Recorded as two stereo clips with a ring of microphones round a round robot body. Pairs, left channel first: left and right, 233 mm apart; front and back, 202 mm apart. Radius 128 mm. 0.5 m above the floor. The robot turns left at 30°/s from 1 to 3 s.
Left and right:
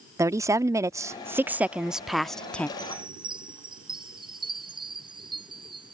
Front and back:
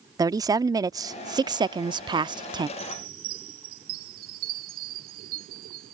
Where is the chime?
155° right; by 5.9 s 160° right.